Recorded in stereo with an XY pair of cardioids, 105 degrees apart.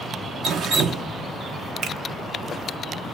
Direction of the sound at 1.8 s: 60° right.